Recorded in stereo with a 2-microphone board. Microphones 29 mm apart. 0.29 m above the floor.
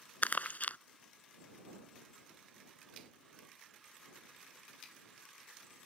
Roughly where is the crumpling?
Left.